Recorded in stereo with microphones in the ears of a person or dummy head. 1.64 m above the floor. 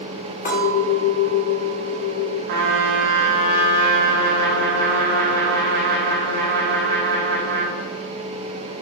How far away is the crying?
No crying in this recording.